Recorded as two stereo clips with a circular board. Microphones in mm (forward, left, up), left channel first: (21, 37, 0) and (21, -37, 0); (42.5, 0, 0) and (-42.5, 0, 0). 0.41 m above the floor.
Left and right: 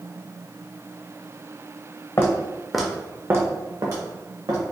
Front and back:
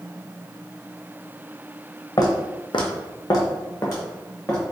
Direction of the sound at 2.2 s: 40° left.